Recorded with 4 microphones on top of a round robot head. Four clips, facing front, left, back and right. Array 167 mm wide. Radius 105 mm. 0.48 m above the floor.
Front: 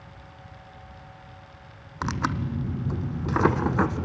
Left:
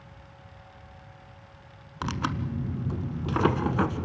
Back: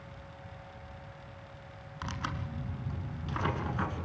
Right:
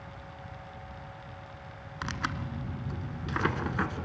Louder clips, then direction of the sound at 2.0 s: Left 5 dB, front 11 dB; 30° left.